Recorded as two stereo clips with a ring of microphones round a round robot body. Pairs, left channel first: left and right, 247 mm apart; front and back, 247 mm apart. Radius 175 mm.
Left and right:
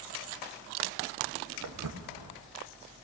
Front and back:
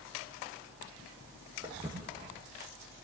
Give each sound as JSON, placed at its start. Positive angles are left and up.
{"t": 1.6, "sound": "footsteps", "azimuth_deg": -105, "distance_m": 1.8}